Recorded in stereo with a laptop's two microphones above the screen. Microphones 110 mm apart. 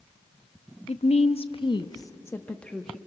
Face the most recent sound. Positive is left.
turn(degrees=5)  # may be behind; listen again after turning